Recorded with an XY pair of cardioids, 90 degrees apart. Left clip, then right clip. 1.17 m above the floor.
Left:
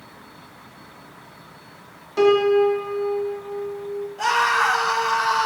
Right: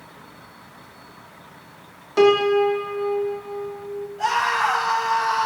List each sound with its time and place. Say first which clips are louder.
2.2 s a piano: even; 40° right, 1.6 m
4.2 s a scream: left 2 dB; 60° left, 4 m